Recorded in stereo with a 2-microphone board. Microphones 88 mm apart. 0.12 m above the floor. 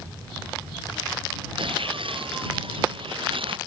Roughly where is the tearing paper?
Right.